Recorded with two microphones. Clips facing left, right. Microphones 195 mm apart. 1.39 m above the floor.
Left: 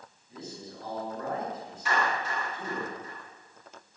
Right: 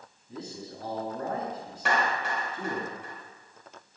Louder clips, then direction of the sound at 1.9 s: Right 1 dB; 80° right.